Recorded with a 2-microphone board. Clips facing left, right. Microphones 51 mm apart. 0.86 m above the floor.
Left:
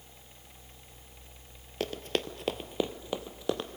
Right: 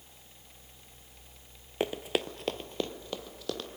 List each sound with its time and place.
1.8 s running footsteps: 20° right (ahead or behind), 0.8 m; by 3.7 s 25° left (ahead or behind), 1.6 m